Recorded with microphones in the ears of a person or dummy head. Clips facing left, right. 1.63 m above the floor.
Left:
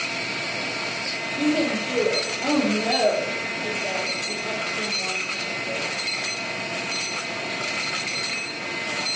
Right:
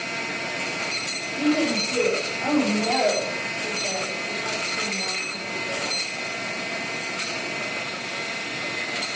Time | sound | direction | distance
1.4 | a woman speaking | 25° left (ahead or behind) | 4.5 m